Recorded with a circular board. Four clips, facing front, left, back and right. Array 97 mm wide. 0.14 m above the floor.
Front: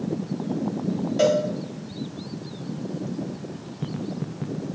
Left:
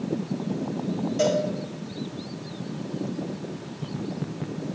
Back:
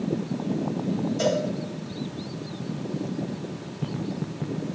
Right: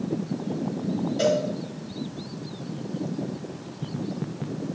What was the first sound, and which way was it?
A cowbell, 5° left.